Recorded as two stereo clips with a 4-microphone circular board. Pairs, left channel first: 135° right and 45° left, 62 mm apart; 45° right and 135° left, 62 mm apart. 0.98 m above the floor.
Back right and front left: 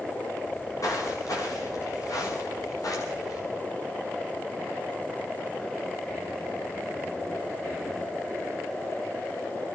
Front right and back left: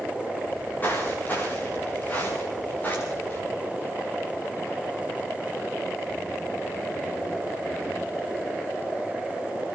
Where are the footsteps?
105° right, 9.5 m; by 3.4 s 110° right, 11 m.